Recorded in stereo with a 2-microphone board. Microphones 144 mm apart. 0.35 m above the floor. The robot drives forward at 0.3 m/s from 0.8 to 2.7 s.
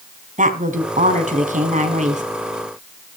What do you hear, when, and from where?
0.4 s a woman speaking: 65° right (ahead or behind), 3.5 m; by 2.2 s 60° right (ahead or behind), 3.5 m